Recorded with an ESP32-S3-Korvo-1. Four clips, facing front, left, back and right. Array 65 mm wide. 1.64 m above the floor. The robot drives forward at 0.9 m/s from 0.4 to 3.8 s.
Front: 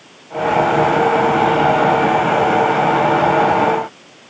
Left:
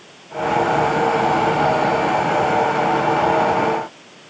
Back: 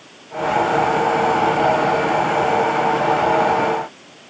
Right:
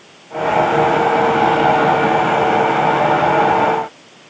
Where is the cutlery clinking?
I don't hear cutlery clinking.